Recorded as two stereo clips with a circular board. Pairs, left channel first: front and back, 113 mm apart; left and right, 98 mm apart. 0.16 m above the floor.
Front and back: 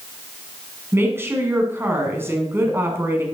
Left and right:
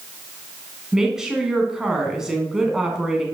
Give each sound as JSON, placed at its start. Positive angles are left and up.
{"t": 0.9, "sound": "a woman speaking", "azimuth_deg": -160, "distance_m": 1.7}